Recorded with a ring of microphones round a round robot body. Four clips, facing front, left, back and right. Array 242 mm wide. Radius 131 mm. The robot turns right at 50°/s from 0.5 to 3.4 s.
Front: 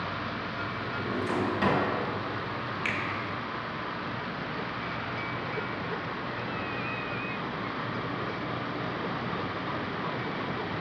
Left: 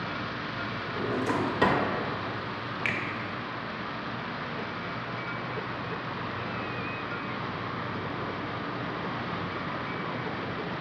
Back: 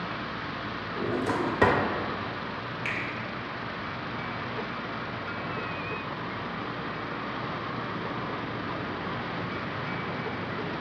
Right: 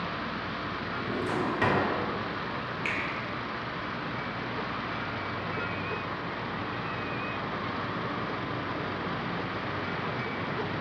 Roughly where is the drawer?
Behind left.